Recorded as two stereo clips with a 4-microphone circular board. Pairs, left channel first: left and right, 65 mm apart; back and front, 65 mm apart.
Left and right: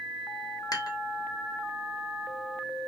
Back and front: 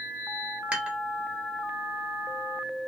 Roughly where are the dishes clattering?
Left.